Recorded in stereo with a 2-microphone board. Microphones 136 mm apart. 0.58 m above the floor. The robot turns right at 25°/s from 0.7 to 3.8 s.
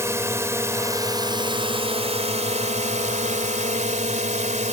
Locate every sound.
0.0 s a drone: 160° right; by 4.7 s 80° right